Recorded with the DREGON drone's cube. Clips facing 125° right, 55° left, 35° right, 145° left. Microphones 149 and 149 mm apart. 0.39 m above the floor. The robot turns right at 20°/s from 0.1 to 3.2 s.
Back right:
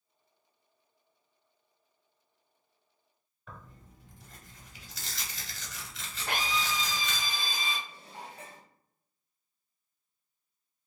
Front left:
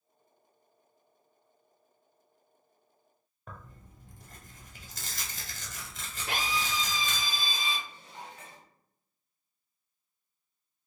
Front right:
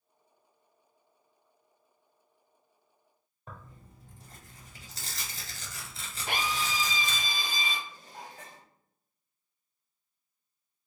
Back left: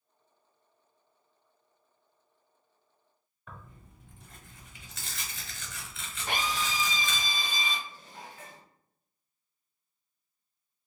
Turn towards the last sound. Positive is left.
turn(degrees=-75)